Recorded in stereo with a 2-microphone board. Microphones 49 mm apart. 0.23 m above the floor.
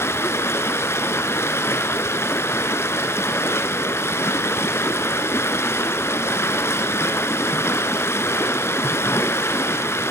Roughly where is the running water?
Left.